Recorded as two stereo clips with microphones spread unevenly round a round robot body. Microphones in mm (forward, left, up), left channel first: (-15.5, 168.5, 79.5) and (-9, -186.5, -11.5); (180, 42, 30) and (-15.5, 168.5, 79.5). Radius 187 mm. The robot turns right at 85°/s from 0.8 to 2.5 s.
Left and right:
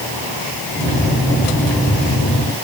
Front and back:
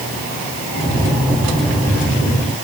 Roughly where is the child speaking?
I don't hear a child speaking.